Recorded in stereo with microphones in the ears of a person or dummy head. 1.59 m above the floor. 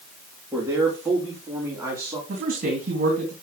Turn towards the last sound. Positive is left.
turn(degrees=-55)  # may be behind; listen again after turning